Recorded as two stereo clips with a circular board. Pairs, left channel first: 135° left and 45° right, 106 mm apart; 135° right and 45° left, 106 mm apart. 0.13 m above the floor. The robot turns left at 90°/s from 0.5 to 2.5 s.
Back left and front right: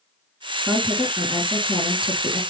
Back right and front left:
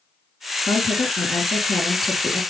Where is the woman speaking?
100° right, 1.9 m; by 2.4 s 105° left, 1.9 m.